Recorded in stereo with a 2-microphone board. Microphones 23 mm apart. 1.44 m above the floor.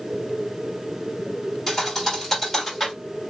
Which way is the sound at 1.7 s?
15° left (ahead or behind).